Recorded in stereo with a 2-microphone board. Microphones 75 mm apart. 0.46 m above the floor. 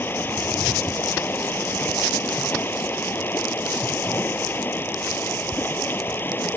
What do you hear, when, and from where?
0.0 s running water: 30° left (ahead or behind)